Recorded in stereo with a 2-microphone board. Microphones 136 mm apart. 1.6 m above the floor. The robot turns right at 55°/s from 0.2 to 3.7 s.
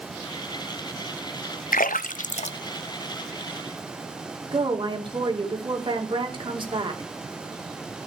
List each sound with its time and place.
1.7 s a splash: 85° left, 0.6 m; by 3.8 s 10° right (ahead or behind), 0.6 m
4.5 s a woman speaking: 35° right (ahead or behind), 2.5 m